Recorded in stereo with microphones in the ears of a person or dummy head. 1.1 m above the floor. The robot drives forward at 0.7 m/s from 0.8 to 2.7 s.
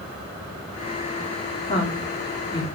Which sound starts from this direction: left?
A woman speaking, at 1.7 s.